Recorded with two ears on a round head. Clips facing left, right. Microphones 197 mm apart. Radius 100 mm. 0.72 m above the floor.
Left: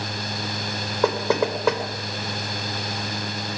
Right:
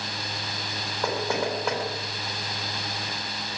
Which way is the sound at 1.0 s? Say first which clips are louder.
Left 6 dB; 60° left (ahead or behind).